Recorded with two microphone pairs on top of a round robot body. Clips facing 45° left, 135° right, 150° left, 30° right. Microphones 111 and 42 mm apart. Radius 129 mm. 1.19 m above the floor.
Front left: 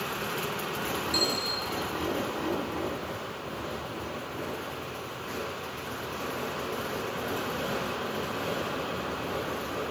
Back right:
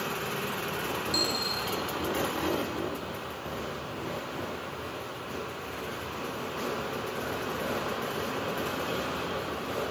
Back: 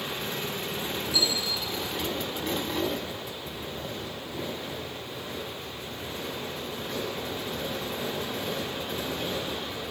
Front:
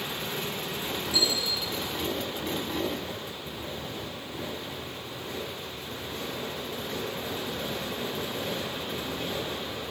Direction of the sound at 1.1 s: 70° right.